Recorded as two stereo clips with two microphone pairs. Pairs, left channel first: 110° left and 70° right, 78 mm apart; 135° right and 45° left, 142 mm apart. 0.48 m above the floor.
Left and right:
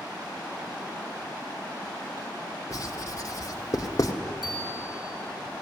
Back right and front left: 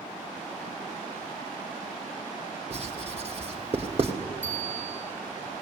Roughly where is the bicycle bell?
Ahead right.